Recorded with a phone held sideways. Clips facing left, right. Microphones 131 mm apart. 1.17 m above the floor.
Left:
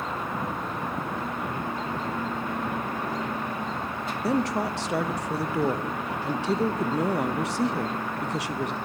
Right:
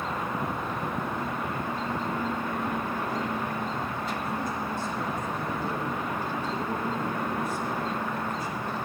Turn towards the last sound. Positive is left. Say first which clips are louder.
# left 6 dB
turn(degrees=80)